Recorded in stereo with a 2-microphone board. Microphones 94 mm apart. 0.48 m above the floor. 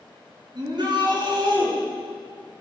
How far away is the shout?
About 4.5 m.